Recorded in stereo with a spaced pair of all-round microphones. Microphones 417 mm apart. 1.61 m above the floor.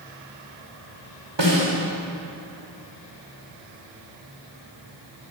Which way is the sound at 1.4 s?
85° right.